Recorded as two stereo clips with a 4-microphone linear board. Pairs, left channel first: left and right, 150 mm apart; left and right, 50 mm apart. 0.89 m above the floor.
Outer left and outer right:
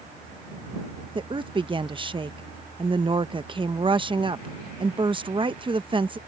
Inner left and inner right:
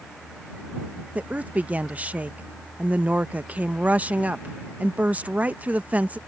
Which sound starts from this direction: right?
A woman speaking, at 1.1 s.